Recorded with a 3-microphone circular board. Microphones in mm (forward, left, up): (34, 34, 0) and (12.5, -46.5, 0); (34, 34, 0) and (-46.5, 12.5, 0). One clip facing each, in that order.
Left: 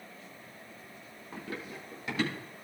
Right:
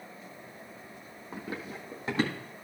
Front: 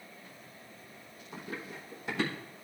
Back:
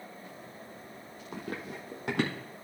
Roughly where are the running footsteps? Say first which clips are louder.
Right 2 dB, back 3 dB; behind.